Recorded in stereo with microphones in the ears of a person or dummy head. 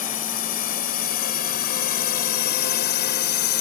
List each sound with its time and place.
0.0 s a drone: 45° left (ahead or behind); by 3.6 s 55° left (ahead or behind)